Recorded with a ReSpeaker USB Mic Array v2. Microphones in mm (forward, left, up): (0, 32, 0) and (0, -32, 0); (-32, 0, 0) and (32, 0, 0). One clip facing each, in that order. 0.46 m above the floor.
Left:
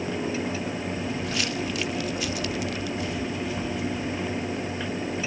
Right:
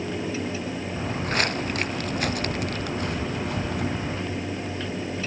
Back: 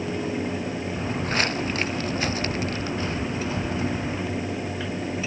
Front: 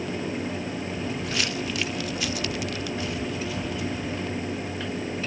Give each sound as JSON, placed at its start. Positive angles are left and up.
{"t": 0.9, "sound": "footsteps", "azimuth_deg": -130}